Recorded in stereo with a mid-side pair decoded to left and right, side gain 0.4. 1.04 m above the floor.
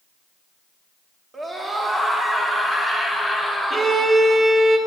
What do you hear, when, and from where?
1.3 s a scream: 30° right, 2.5 m; by 4.0 s 5° right, 3.5 m
3.7 s a violin: 30° right, 0.9 m